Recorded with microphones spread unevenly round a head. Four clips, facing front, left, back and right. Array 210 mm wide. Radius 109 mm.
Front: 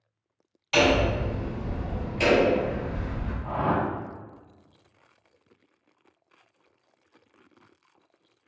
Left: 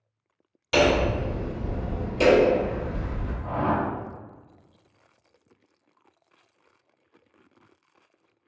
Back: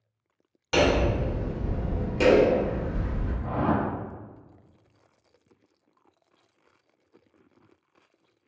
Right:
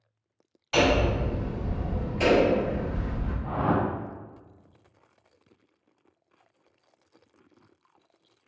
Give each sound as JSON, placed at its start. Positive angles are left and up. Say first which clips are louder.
{"t": 0.7, "sound": "hammering", "louder": "left 2 dB, front 1 dB", "azimuth_deg": 130, "distance_m": 1.6}
{"t": 3.4, "sound": "a whoosh", "louder": "left 1 dB, even", "azimuth_deg": 150, "distance_m": 0.8}